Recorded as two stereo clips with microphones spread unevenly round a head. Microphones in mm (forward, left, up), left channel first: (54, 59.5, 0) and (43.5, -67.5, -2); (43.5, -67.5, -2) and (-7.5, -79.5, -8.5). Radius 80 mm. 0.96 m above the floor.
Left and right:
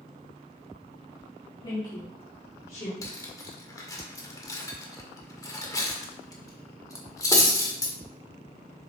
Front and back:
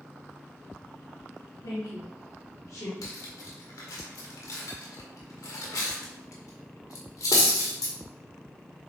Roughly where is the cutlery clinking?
Ahead.